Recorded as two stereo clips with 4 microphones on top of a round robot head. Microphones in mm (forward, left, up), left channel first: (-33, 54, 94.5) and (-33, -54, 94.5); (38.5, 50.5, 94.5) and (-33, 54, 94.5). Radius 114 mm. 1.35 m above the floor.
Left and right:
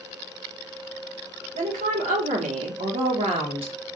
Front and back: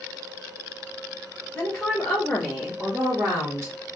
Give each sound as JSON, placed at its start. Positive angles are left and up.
{"t": 1.6, "sound": "a woman speaking", "azimuth_deg": -75, "distance_m": 1.4}